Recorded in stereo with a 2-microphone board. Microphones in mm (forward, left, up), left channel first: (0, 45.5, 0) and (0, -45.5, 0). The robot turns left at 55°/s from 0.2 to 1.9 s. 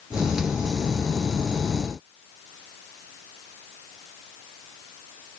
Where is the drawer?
I don't hear a drawer.